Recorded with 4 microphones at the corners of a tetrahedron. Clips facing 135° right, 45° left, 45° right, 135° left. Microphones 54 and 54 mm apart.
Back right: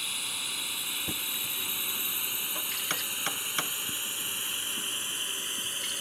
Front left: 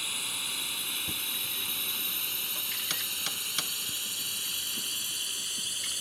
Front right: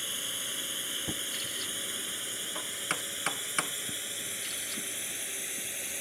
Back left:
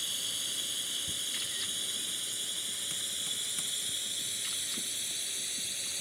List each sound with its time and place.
0.0 s a drone: 45° right; by 6.0 s 95° right
1.1 s knocking: 70° right